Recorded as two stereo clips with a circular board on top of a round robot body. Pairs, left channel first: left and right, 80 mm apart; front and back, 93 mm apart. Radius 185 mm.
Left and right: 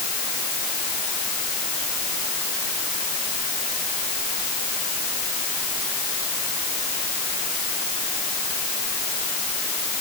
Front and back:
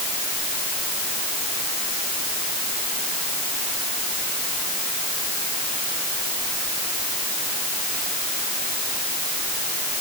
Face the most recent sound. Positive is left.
No sound to turn to.